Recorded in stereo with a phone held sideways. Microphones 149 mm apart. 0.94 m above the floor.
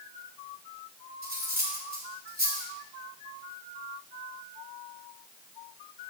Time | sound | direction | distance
1.2 | cutlery clinking | 75° right (ahead or behind) | 2.0 m